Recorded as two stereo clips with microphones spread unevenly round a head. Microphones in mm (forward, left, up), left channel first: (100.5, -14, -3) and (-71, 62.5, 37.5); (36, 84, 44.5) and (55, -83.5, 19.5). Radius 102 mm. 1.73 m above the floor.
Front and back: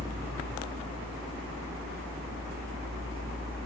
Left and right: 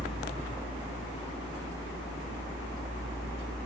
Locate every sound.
0.0 s a fan: 95° left, 1.4 m